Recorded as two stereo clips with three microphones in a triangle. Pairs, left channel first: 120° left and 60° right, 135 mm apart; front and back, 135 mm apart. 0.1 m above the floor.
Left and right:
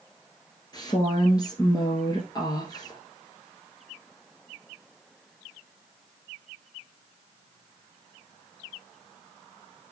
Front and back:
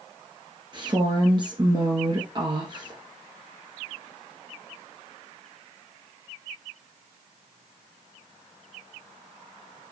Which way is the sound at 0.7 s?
155° left.